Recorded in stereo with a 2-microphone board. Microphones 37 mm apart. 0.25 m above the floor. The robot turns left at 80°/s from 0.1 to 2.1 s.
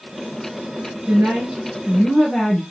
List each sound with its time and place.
1.1 s a woman speaking: 125° right, 4 m; by 2.6 s 150° left, 4 m